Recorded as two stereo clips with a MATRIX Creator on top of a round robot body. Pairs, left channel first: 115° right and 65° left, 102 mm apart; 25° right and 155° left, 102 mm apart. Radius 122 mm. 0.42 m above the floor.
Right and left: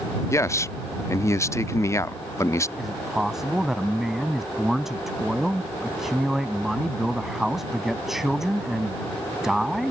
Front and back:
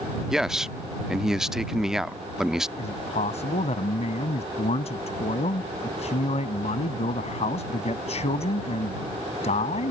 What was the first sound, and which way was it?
A man speaking, 125° right.